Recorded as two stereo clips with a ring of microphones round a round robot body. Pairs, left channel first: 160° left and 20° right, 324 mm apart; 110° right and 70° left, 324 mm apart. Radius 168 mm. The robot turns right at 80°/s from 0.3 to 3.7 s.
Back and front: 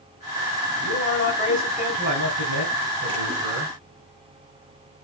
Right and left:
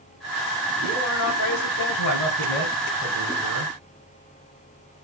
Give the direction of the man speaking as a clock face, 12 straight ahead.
6 o'clock.